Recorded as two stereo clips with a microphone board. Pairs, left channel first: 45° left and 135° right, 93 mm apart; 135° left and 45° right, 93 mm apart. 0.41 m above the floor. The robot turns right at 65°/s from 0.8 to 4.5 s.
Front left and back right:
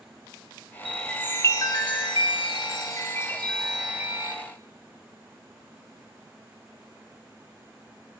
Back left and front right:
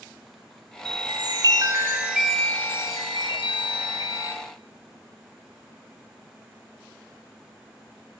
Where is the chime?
50° right, 1.0 m; by 4.3 s 175° left, 1.0 m.